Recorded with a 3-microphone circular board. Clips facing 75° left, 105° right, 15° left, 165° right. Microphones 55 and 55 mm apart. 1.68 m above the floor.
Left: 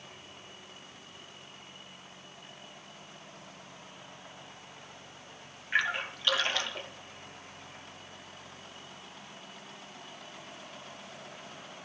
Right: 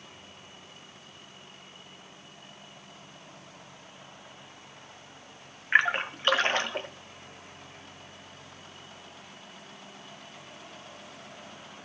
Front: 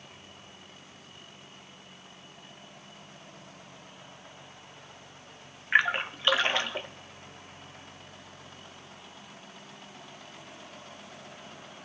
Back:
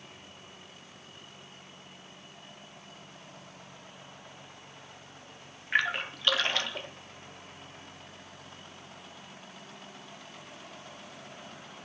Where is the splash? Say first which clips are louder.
Right 6 dB, front 4 dB; 55° right, 1.4 m.